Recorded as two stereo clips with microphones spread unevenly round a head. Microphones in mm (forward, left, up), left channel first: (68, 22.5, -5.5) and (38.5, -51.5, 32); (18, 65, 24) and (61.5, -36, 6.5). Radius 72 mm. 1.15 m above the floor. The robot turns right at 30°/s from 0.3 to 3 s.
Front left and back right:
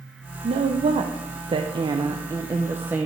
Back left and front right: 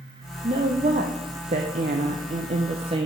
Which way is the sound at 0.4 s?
110° right.